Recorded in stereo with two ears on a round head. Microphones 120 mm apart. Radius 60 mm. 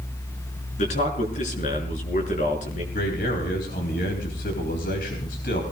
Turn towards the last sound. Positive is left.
turn(degrees=75)  # may be behind; listen again after turning